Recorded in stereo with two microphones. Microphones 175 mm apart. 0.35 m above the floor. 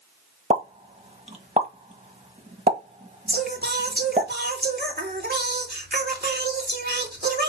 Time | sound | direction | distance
0.5 | a pop | 40° right (ahead or behind) | 1.3 m
3.3 | singing | 65° right (ahead or behind) | 2.5 m